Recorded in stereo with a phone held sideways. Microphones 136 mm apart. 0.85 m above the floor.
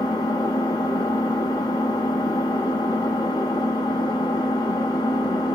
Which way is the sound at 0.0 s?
30° left (ahead or behind).